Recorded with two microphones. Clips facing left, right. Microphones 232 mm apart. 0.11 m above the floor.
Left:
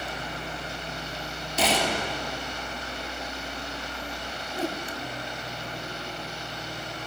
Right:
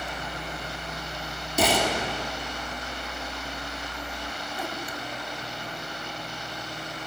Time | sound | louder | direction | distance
1.6 | a gunshot | right 2 dB | 50° right (ahead or behind) | 2.5 m
4.5 | a whoosh | left 7 dB | 35° left (ahead or behind) | 0.8 m